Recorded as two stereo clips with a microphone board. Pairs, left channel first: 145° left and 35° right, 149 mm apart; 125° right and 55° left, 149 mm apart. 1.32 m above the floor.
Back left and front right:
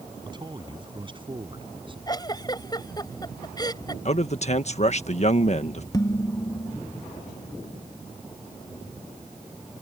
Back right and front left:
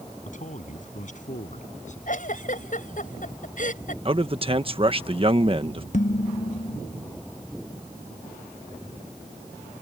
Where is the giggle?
150° right.